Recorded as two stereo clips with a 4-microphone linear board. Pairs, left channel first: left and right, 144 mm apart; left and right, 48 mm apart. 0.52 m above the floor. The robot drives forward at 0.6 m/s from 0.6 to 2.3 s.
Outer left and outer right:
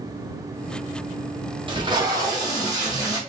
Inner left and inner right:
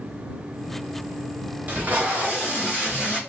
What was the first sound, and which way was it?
Tape being pulled, 35° right (ahead or behind).